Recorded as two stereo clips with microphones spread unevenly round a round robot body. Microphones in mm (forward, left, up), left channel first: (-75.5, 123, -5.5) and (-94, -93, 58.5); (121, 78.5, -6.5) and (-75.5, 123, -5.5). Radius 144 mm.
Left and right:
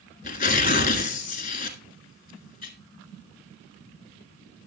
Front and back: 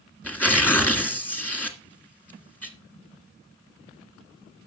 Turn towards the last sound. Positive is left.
turn(degrees=65)